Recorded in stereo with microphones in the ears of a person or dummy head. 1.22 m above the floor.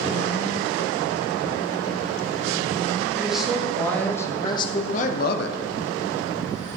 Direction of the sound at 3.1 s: 5° right (ahead or behind).